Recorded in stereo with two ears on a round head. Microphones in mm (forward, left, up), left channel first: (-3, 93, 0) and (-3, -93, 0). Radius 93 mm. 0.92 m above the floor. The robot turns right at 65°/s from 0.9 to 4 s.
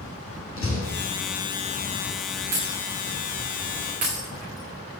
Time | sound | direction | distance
0.6 | a door slam | 70° left (ahead or behind) | 6 m
2.5 | breaking glass | 45° right (ahead or behind) | 7.5 m